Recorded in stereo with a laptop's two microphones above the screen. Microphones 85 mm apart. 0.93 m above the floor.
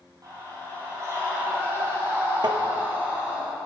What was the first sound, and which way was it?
A scream, 45° right (ahead or behind).